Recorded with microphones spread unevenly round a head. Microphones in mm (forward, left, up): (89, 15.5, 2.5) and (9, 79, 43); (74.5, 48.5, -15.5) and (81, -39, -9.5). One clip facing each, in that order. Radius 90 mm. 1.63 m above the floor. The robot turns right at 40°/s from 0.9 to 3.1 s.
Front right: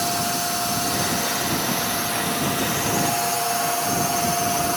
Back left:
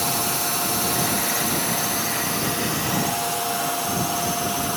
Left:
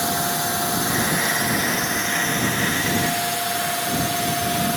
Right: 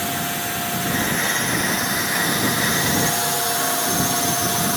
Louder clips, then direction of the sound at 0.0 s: Front right 1 dB, left 2 dB; 150° left.